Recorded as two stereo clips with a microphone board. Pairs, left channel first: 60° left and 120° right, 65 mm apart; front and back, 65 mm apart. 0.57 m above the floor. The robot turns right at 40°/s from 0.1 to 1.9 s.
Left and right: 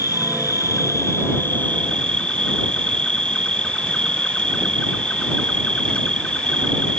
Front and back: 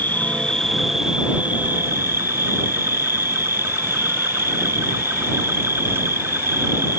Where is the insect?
60° left; by 7.0 s 135° left.